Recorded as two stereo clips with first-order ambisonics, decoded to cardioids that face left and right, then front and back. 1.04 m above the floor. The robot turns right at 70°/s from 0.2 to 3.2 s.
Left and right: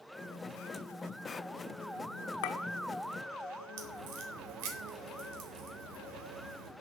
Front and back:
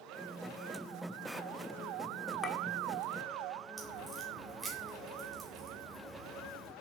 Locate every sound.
2.4 s a clink: 80° left, 1.5 m; by 2.6 s 90° left, 1.5 m
3.8 s a crack: 100° right, 3 m